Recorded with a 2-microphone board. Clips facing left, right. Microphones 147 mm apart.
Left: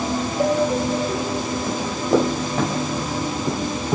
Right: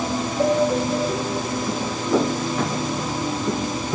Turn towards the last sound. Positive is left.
turn(degrees=65)  # may be behind; listen again after turning